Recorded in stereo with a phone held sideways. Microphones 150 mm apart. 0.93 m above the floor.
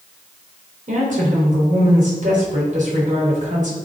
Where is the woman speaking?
55° right (ahead or behind), 3 m.